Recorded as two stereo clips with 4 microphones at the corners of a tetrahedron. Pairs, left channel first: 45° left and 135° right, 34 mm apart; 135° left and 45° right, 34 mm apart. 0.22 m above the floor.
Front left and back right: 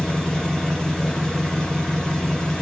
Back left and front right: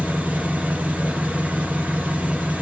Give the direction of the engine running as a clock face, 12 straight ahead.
1 o'clock.